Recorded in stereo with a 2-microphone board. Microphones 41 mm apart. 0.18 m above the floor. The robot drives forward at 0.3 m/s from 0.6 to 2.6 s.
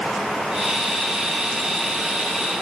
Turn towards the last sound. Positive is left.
No sound to turn to.